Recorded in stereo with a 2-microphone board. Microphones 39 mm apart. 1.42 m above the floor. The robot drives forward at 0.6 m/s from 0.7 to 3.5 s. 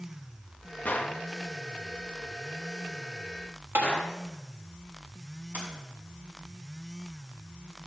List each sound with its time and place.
0.8 s a gunshot: 45° left (ahead or behind), 1.0 m; by 4.2 s 30° left (ahead or behind), 1.4 m
3.8 s tapping: 60° right (ahead or behind), 1.4 m
5.5 s a sliding door: 40° right (ahead or behind), 4.5 m